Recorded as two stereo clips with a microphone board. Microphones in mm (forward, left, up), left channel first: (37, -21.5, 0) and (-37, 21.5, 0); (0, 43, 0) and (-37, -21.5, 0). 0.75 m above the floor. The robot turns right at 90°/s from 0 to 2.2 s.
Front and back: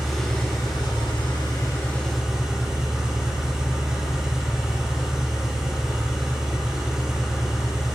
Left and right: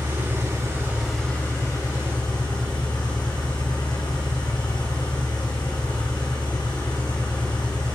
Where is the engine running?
130° right, 4 m; by 8.0 s 65° left, 4 m.